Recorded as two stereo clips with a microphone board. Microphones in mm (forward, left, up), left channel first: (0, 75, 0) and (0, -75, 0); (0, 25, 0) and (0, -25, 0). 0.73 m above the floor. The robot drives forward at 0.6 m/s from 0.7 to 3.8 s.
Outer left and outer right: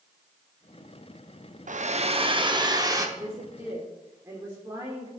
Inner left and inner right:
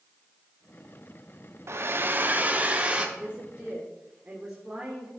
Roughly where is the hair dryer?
Right.